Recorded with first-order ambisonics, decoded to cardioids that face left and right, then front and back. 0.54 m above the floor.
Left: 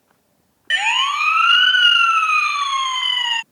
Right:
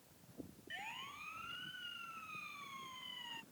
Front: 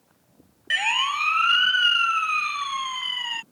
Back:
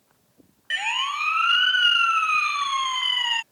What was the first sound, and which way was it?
A siren, 75° left.